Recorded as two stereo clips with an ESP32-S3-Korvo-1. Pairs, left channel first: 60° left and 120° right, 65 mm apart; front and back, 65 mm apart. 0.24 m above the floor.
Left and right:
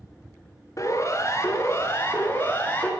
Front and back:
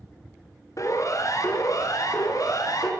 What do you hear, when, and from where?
0.8 s a siren: 25° left, 5 m; by 2.9 s straight ahead, 5 m